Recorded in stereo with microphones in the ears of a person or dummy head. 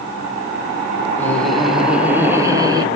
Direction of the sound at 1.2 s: 5° left (ahead or behind).